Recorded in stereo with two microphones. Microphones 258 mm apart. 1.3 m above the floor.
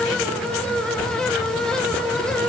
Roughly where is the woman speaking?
I don't hear a woman speaking.